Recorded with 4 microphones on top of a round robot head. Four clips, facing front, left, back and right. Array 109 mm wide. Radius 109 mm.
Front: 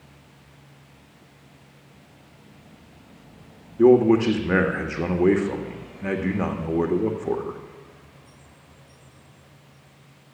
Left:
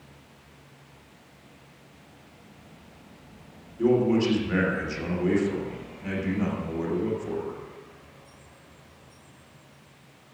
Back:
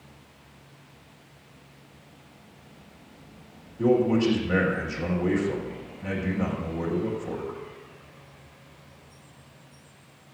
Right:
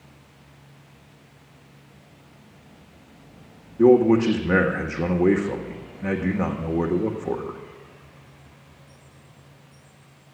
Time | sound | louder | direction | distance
3.8 | a man speaking | right 7 dB, front 6 dB | 45° right | 1.8 m